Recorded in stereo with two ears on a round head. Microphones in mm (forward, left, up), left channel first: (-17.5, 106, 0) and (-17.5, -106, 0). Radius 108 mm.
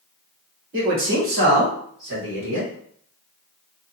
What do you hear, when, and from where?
0.7 s a man speaking: 55° right (ahead or behind), 2 m; by 2.7 s 65° right (ahead or behind), 3 m